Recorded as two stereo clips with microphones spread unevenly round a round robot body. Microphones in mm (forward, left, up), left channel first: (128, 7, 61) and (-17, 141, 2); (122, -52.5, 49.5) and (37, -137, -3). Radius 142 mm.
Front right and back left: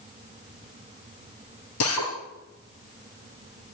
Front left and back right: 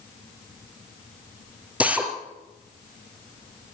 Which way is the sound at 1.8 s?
55° right.